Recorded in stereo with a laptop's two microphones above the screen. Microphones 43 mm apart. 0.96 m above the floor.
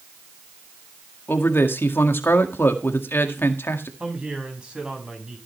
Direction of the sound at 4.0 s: 25° right (ahead or behind).